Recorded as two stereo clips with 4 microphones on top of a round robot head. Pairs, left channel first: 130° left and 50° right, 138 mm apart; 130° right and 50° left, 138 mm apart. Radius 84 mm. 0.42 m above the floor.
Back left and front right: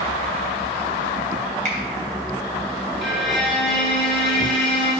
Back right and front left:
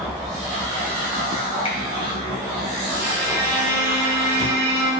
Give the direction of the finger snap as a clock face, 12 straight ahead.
3 o'clock.